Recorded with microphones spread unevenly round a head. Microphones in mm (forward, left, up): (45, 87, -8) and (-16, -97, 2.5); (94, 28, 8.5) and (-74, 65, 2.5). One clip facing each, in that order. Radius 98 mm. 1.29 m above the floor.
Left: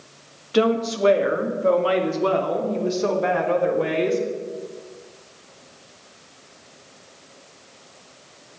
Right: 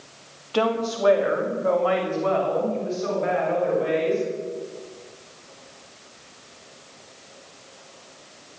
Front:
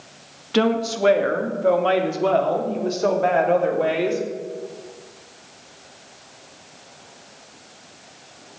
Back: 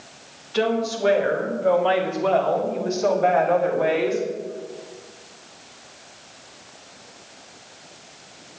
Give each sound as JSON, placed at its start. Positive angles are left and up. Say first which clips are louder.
{"t": 0.5, "sound": "a woman speaking", "louder": "left 4 dB, front 2 dB", "azimuth_deg": 5, "distance_m": 2.5}